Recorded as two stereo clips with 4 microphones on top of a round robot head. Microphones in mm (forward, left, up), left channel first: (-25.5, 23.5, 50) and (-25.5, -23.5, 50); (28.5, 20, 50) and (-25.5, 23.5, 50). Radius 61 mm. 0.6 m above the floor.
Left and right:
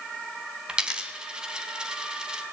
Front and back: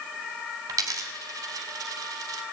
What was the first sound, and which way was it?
A dropped coin, 160° right.